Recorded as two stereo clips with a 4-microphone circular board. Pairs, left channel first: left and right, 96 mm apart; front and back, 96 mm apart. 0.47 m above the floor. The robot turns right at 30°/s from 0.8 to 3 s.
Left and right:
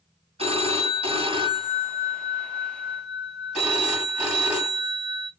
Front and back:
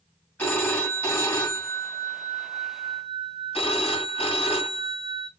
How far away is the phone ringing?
About 1.7 m.